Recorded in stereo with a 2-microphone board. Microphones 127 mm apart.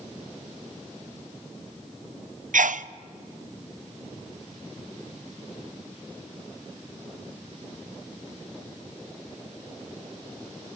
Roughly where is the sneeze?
Right.